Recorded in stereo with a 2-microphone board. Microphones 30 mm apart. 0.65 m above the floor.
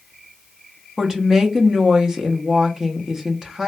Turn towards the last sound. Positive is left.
turn(degrees=-25)  # may be behind; listen again after turning